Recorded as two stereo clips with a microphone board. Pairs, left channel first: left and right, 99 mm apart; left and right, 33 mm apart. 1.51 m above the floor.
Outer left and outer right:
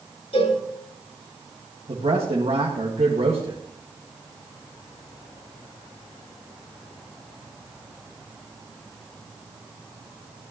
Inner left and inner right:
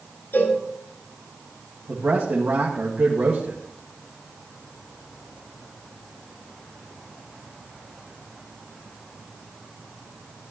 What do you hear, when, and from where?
0.3 s a cowbell: 80° left, 3.5 m
1.9 s a man speaking: 80° right, 1.8 m